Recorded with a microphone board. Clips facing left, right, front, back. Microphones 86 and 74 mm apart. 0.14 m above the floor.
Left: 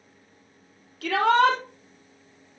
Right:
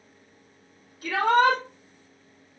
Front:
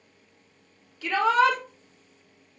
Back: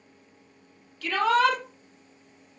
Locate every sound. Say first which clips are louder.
1.0 s a shout: left 1 dB, front 1 dB; 80° left, 5 m